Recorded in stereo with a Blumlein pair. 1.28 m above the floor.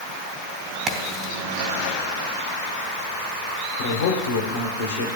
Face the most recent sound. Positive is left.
turn(degrees=55)